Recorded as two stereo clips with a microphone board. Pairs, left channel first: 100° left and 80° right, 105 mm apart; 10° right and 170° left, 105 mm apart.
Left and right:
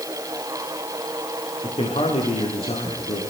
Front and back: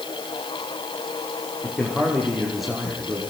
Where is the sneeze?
I don't hear a sneeze.